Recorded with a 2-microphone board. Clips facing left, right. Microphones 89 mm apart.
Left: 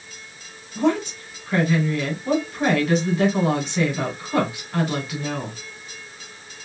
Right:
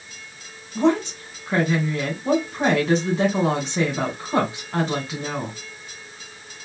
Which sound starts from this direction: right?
A woman speaking, at 0.8 s.